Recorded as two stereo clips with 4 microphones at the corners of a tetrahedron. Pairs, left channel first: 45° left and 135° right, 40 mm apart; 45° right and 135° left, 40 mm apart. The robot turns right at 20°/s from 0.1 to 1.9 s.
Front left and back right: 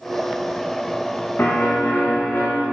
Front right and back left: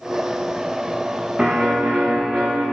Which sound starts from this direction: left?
A piano, at 1.4 s.